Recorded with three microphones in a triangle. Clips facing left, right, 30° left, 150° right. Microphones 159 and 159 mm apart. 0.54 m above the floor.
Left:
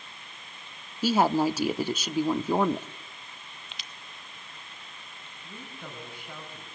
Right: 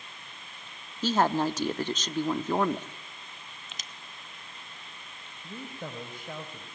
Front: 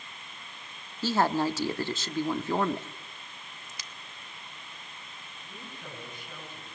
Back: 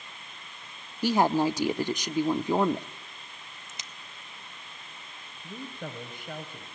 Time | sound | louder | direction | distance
1.0 | a woman speaking | left 2 dB, back 3 dB | 160° left | 0.8 m
3.7 | a crack | even, even | 90° right | 1.2 m
5.4 | a woman speaking | right 4 dB, back 7 dB | 130° right | 3.5 m